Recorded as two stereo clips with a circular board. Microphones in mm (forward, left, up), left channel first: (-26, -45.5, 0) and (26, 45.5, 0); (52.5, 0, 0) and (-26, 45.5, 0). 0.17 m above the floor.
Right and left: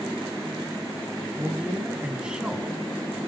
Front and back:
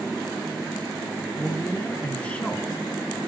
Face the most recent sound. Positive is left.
turn(degrees=0)